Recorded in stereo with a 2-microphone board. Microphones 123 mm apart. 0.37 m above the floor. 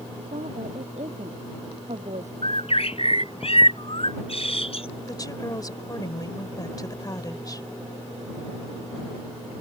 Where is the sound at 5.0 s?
35° left (ahead or behind).